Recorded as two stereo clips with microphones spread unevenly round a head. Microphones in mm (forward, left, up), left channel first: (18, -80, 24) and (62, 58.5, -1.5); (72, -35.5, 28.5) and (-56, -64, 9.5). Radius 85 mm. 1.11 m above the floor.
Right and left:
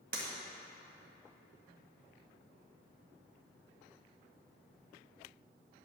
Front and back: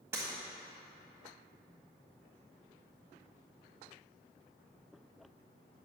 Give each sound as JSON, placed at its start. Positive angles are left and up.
{"t": 0.1, "sound": "breaking glass", "azimuth_deg": 110, "distance_m": 1.6}